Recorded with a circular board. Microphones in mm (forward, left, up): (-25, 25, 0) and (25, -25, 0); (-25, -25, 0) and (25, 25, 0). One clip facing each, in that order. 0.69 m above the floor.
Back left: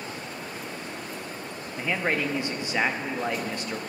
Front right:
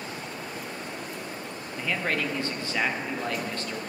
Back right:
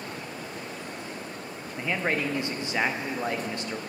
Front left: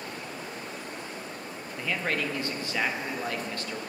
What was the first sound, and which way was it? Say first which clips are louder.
A man speaking: back left 2 dB, back right 2 dB; straight behind.